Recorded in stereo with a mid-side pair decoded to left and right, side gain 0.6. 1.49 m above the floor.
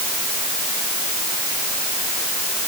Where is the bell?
No bell in this recording.